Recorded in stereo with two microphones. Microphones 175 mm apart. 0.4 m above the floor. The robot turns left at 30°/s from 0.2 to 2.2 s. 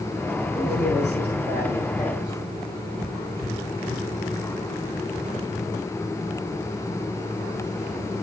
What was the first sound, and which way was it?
A man speaking, 95° left.